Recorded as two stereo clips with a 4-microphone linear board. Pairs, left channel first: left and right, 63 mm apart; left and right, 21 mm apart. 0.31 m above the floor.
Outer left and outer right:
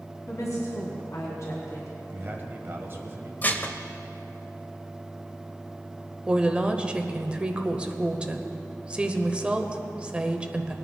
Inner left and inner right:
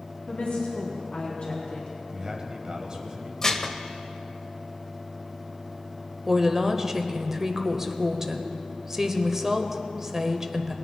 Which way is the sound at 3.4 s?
30° left (ahead or behind).